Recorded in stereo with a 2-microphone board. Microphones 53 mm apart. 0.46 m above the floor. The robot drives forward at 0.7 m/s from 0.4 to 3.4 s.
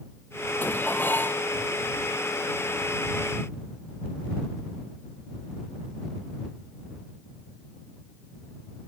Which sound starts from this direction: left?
Dishes clattering, at 0.6 s.